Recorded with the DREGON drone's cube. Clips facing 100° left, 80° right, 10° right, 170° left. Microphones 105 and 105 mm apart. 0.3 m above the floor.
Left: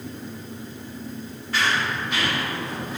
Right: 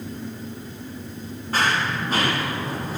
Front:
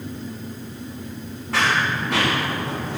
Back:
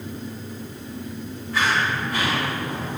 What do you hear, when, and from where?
1.5 s running footsteps: 30° right, 10 m; by 3.0 s 25° right, 8.5 m